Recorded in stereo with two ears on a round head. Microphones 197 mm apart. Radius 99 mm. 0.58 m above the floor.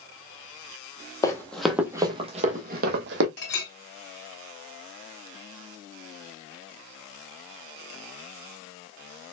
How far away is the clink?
About 1.8 m.